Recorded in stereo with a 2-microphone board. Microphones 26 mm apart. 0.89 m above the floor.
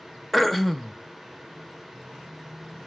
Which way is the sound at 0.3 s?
10° left (ahead or behind).